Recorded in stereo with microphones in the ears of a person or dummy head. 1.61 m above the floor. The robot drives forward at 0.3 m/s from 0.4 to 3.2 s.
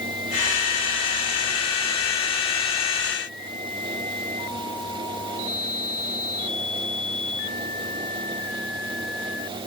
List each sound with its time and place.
Only background noise.